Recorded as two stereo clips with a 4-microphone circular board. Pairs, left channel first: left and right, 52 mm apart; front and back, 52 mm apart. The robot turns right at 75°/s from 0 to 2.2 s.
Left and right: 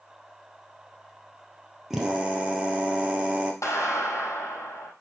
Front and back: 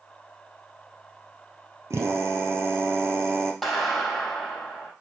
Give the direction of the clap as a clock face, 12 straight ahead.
9 o'clock.